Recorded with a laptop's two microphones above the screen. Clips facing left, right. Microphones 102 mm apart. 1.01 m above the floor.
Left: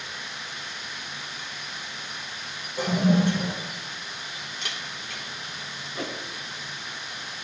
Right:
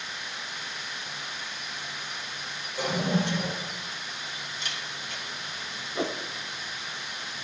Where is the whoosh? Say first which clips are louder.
Right 4 dB; 25° right (ahead or behind), 0.8 m.